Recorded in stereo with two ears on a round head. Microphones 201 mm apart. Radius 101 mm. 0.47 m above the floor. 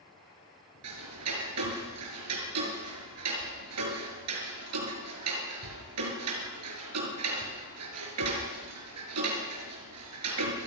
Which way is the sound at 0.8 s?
80° right.